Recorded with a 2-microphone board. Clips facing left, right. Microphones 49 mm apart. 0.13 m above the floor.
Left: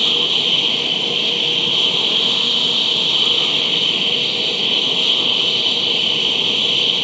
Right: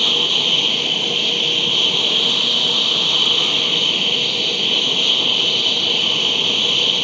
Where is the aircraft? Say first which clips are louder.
Even; 5° left (ahead or behind).